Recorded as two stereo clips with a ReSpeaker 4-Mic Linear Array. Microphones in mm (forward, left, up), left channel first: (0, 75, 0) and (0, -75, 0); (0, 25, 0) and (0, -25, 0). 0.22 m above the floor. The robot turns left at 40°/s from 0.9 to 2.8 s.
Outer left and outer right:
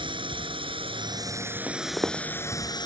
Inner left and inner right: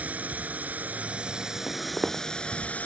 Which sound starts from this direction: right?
A drone, at 0.0 s.